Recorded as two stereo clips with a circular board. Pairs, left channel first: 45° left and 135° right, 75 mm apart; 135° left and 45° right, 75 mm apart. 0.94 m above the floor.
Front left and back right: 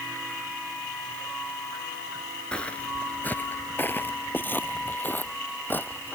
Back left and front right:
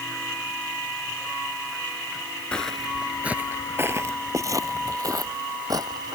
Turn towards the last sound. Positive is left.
turn(degrees=-20)